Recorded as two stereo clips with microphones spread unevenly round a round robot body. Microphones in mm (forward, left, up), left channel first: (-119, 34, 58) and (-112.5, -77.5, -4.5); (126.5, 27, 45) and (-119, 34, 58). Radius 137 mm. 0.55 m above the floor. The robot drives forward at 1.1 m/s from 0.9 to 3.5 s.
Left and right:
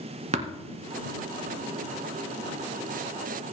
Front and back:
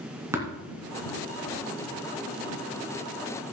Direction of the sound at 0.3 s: 100° right.